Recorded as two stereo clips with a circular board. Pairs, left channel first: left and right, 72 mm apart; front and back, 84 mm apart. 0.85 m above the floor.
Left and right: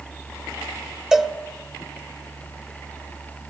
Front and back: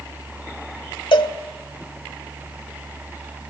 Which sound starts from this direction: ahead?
A cowbell, at 1.1 s.